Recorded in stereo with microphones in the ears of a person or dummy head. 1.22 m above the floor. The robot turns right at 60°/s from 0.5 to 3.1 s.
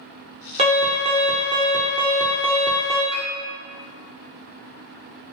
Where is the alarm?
95° right, 1.0 m; by 3.0 s 50° left, 1.0 m.